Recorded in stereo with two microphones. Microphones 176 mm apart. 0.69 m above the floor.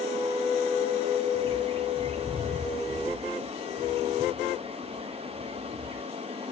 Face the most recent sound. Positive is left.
turn(degrees=-30)  # may be behind; listen again after turning